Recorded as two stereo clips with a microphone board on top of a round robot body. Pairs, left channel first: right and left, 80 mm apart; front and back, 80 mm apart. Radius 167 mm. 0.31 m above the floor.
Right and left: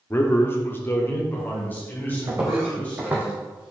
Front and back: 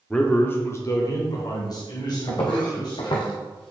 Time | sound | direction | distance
0.1 | a man speaking | 70° right | 1.2 m
2.3 | footsteps | 35° left | 1.9 m